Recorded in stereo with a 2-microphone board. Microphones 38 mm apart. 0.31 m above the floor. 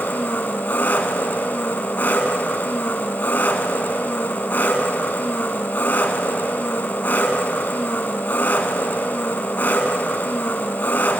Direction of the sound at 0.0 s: 60° left (ahead or behind).